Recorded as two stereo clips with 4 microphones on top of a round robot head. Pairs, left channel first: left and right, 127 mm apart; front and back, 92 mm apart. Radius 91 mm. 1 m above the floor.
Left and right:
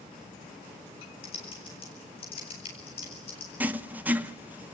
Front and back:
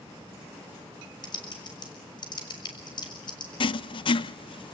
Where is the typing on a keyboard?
35° left, 6.5 m.